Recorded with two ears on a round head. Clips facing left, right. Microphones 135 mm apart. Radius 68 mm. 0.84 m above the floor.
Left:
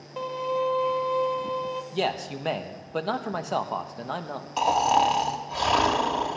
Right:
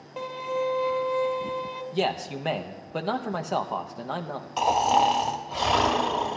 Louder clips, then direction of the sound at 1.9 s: Right 3 dB; centre (ahead or behind).